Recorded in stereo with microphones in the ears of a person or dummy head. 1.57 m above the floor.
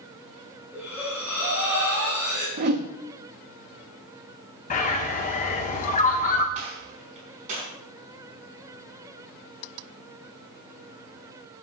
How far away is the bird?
About 1.4 m.